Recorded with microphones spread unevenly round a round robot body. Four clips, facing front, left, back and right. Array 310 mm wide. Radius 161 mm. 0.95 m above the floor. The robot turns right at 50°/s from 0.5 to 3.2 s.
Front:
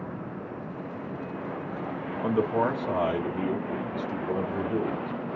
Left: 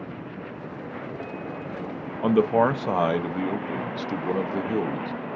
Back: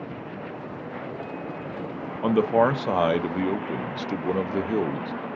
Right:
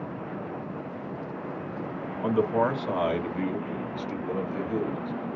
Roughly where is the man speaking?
Left.